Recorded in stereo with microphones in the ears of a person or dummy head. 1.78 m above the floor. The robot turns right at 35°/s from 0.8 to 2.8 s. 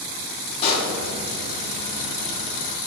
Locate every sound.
0.6 s a pop: 35° left (ahead or behind), 1.4 m